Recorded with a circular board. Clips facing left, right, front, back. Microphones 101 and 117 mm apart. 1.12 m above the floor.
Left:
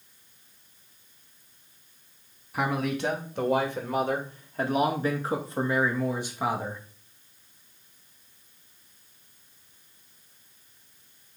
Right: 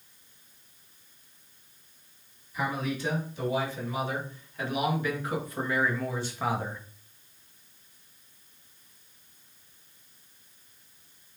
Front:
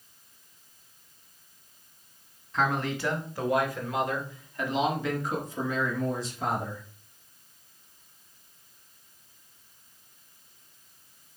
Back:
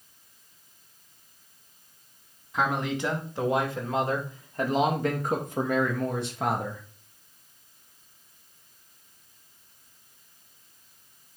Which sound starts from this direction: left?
A man speaking, at 2.5 s.